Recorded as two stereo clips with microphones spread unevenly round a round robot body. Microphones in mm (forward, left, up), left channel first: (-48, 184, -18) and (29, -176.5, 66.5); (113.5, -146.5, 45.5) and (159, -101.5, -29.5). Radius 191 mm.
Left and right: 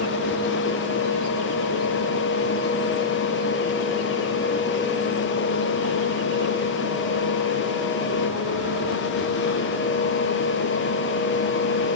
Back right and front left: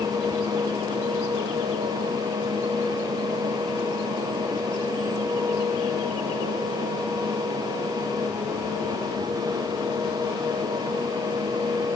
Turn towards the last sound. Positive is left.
No sound to turn to.